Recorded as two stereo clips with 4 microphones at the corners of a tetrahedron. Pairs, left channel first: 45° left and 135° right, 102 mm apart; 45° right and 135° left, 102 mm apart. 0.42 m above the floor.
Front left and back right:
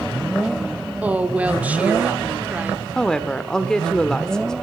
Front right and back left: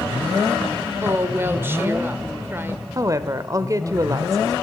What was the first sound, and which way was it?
A woman speaking, 165° left.